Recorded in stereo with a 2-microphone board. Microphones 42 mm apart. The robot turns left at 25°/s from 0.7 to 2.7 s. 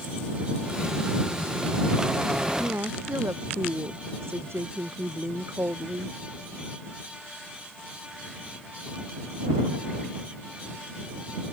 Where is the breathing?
I don't hear breathing.